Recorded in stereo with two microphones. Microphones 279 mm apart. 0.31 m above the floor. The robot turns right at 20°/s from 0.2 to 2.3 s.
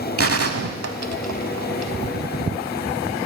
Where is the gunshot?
55° right (ahead or behind), 0.7 m; by 1.9 s 75° right (ahead or behind), 0.7 m.